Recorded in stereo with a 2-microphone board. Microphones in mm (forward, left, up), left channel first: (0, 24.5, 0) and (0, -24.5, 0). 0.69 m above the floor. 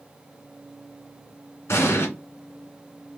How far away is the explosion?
About 1.6 m.